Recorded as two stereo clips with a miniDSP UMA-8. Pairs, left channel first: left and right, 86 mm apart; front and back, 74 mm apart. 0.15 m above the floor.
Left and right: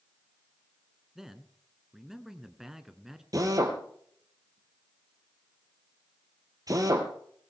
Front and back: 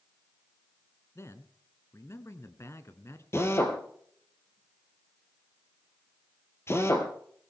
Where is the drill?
50° right, 3 m.